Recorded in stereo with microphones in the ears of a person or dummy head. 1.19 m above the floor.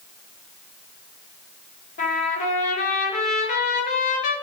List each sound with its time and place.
2.0 s a trumpet: 40° left (ahead or behind), 1.0 m